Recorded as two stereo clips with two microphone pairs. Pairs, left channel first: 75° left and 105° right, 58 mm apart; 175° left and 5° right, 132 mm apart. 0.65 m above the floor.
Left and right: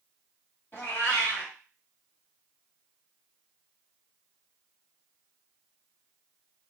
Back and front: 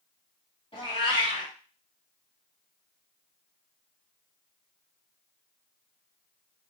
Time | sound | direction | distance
0.7 | a cat meowing | 130° left | 1.2 m